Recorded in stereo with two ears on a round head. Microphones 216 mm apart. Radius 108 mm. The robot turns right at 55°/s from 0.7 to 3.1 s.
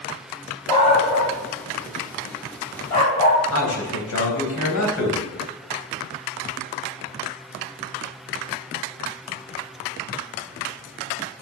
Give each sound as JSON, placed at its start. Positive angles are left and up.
{"t": 0.7, "sound": "a dog barking", "side_deg": 20, "distance_m": 4.0}
{"t": 3.5, "sound": "a man speaking", "side_deg": 65, "distance_m": 3.5}